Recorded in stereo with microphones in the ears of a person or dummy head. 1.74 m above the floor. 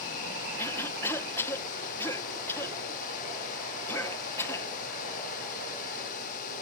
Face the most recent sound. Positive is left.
turn(degrees=20)  # may be behind; listen again after turning